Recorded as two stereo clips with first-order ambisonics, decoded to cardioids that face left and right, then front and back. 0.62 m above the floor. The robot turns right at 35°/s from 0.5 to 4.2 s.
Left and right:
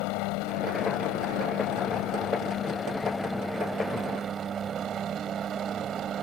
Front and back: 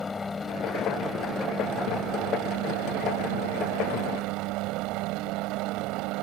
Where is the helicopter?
75° left; by 6.2 s 155° right.